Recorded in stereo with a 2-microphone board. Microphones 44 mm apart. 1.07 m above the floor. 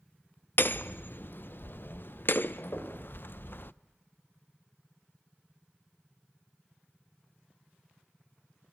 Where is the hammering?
55° left (ahead or behind), 0.5 m.